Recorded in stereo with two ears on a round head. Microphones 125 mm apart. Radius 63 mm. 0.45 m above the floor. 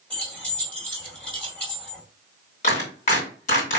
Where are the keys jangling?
10° left (ahead or behind), 1.8 m.